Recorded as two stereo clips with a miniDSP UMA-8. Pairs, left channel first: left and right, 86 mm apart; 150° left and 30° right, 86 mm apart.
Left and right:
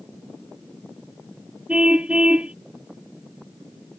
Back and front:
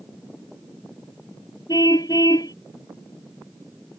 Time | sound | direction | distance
1.7 | a car horn | 165° right | ?